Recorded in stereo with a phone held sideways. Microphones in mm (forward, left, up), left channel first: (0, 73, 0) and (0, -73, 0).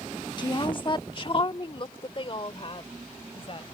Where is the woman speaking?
30° left (ahead or behind); by 3.8 s 40° left (ahead or behind).